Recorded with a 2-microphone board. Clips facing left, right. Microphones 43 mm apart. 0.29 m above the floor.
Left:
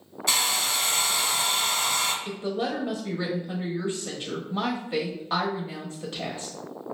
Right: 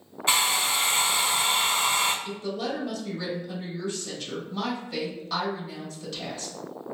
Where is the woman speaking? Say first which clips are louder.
Left 2 dB; 30° left (ahead or behind), 1.0 m.